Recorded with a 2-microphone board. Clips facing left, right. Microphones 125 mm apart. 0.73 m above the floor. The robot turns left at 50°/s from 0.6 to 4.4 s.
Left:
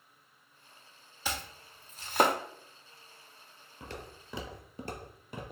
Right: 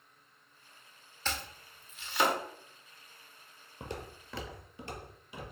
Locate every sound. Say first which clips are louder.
1.2 s chopping: left 1 dB; 10° left (ahead or behind), 0.5 m; by 2.4 s 55° left (ahead or behind), 0.5 m
3.8 s footsteps: right 3 dB; 30° right (ahead or behind), 1.0 m; by 5.5 s 55° left (ahead or behind), 1.3 m